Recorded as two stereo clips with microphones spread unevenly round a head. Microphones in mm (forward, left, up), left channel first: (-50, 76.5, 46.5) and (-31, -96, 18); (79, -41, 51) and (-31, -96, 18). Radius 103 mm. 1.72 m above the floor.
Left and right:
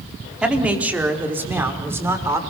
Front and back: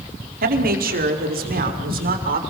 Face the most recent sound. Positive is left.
turn(degrees=-160)